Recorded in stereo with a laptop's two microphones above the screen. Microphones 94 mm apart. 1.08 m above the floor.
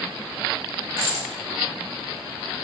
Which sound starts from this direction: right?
A dropped coin, at 1.0 s.